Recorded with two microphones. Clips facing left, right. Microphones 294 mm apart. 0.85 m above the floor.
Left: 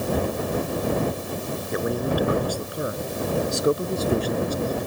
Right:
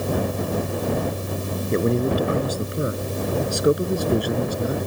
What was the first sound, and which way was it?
A man speaking, 30° right (ahead or behind).